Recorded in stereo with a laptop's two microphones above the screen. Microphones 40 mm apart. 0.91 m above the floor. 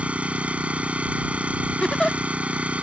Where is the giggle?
25° left (ahead or behind).